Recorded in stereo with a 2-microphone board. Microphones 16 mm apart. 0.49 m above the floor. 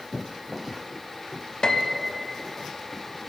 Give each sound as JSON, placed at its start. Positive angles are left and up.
{"t": 1.6, "sound": "a piano", "side_deg": 45, "distance_m": 0.5}